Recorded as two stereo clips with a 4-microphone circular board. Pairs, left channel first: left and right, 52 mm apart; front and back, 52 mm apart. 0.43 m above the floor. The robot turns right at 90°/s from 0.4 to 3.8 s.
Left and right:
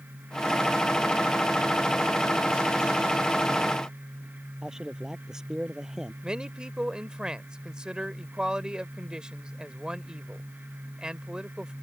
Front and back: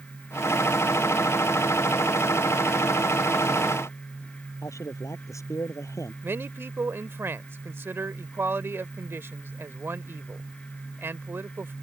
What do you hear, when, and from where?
4.6 s a man speaking: 10° right
6.2 s a man speaking: 160° right